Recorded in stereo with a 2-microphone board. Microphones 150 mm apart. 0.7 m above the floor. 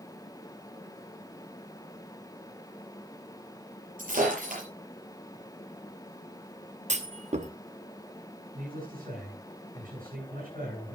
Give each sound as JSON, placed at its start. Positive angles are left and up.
{"t": 4.0, "sound": "breaking glass", "side_deg": -70, "distance_m": 6.5}
{"t": 6.9, "sound": "a clunk", "side_deg": -50, "distance_m": 0.8}
{"t": 8.5, "sound": "a man speaking", "side_deg": -65, "distance_m": 9.0}